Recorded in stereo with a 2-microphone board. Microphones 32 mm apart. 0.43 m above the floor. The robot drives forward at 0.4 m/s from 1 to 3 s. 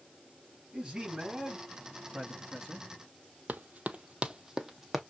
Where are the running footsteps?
60° right (ahead or behind), 0.7 m; by 5.0 s 5° right (ahead or behind), 1.1 m.